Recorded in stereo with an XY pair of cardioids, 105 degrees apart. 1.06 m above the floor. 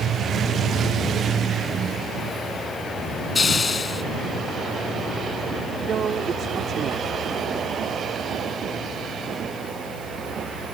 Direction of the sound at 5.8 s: 50° right.